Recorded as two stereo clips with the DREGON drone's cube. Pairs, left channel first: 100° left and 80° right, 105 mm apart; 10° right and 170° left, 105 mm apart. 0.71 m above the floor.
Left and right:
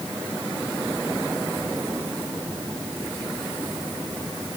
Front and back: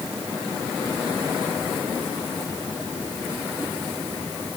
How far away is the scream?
I don't hear a scream.